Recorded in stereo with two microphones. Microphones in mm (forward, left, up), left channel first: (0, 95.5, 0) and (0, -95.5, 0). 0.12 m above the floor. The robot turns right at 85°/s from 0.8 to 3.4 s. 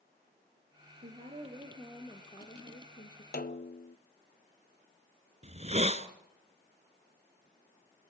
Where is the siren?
No siren in this recording.